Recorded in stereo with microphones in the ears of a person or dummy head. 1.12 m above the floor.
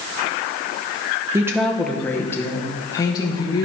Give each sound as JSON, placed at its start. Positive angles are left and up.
{"t": 1.3, "sound": "a woman speaking", "side_deg": -15, "distance_m": 0.7}